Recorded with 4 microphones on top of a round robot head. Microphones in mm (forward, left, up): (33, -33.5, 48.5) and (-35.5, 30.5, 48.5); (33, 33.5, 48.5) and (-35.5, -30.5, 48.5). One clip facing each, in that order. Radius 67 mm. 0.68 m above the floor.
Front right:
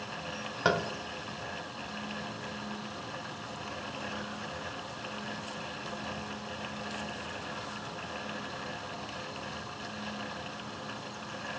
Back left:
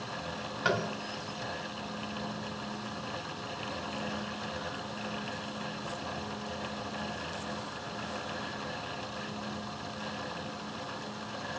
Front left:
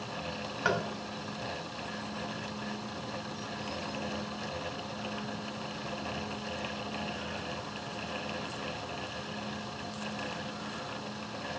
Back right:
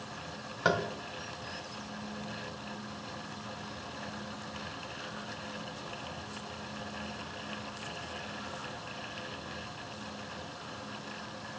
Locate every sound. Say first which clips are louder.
0.7 s tapping: front right 2 dB, back right 2 dB; 75° right, 0.6 m